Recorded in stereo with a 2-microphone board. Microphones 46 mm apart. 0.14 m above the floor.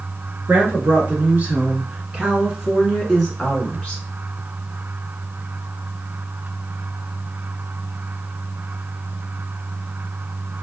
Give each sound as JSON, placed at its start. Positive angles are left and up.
{"t": 0.5, "sound": "a woman speaking", "side_deg": -50, "distance_m": 1.7}